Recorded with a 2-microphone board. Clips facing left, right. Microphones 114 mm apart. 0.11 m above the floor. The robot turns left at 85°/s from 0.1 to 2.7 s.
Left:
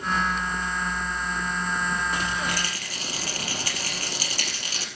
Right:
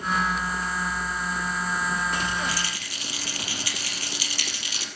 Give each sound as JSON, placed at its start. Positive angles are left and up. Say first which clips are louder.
{"t": 2.5, "sound": "a rattle", "louder": "left 1 dB", "side_deg": 55, "distance_m": 3.5}